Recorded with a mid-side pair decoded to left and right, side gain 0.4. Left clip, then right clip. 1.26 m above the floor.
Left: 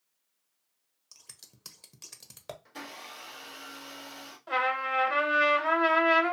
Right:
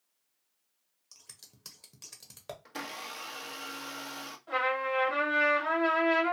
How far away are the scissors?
About 0.8 m.